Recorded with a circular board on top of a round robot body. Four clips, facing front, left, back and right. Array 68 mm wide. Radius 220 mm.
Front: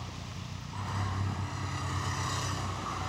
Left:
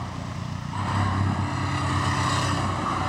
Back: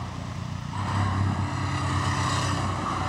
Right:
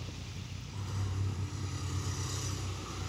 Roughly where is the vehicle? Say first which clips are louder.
Left 13 dB, back 8 dB; behind left.